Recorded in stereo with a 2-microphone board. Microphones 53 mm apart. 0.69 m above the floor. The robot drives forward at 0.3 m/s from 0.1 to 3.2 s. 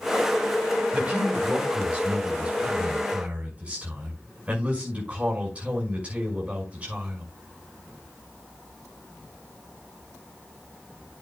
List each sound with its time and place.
0.9 s a man speaking: 25° right (ahead or behind), 6 m